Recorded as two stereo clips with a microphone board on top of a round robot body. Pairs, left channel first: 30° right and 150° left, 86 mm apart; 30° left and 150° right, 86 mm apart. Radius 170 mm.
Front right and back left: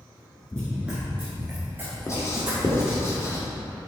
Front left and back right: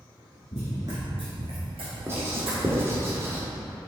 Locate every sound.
0.5 s running footsteps: 40° left, 0.8 m; by 3.1 s 140° right, 2.5 m
2.1 s writing: 90° right, 1.6 m